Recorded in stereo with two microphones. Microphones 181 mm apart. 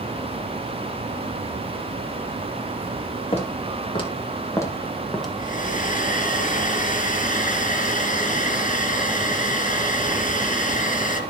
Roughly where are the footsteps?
Left.